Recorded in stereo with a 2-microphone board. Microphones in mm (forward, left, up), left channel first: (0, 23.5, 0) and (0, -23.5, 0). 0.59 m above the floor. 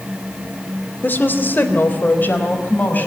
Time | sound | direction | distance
1.0 | a woman speaking | 45° left (ahead or behind) | 2 m